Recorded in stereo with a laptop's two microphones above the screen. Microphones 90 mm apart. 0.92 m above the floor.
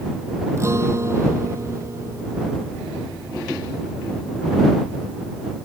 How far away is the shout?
No shout in this recording.